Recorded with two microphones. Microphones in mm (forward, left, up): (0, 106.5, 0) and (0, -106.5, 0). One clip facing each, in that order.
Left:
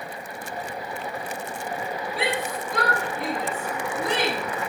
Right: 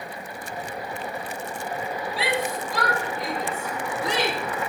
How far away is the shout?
About 4.5 m.